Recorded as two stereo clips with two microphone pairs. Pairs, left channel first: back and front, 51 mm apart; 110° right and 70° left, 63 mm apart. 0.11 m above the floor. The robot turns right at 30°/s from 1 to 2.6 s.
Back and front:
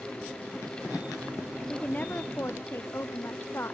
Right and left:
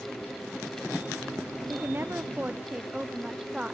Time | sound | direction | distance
1.7 | a woman speaking | 115° left | ?